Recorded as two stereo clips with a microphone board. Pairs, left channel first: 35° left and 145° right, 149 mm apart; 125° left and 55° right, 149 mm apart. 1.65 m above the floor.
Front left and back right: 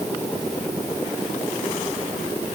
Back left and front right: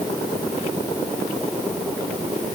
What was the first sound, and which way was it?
Only background noise.